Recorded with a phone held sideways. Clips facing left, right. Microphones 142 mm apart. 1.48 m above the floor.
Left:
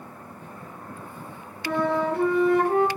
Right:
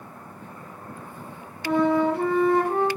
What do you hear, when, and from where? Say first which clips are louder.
1.6 s a flute: right 4 dB; 20° right (ahead or behind), 1.9 m